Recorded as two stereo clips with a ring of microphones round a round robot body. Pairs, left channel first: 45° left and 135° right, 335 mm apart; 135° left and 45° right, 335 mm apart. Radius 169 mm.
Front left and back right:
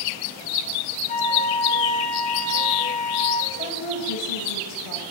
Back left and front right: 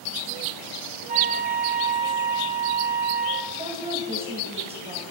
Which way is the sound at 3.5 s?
25° left.